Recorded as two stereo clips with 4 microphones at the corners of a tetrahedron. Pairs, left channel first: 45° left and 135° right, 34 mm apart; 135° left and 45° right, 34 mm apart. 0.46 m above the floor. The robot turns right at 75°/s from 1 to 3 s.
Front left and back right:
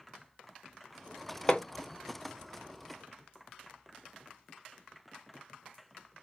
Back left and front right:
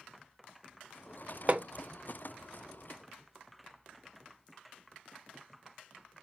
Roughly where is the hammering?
Ahead.